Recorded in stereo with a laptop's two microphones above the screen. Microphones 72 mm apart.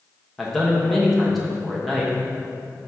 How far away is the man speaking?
About 1.1 m.